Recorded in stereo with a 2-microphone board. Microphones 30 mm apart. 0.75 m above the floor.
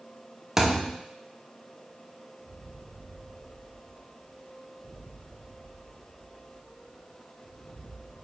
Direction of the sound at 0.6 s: 15° right (ahead or behind).